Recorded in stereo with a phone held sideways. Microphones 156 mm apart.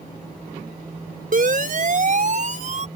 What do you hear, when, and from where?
1.3 s a siren: 60° right (ahead or behind); by 2.9 s 50° right (ahead or behind)